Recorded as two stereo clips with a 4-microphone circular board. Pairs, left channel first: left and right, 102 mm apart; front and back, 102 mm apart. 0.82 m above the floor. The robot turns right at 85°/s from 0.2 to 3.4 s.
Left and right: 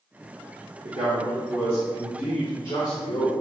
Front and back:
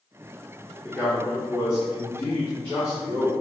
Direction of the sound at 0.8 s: 85° right.